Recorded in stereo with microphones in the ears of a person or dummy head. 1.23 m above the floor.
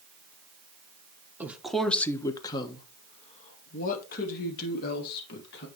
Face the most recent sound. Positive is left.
turn(degrees=55)  # may be behind; listen again after turning